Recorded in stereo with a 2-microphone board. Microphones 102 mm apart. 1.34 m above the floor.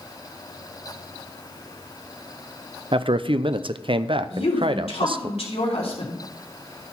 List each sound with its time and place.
2.9 s a man speaking: 60° right (ahead or behind), 0.5 m
4.3 s a woman speaking: 80° left, 3.5 m